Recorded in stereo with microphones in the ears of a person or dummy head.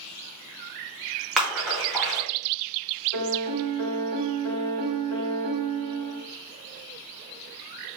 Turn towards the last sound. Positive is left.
turn(degrees=15)  # may be behind; listen again after turning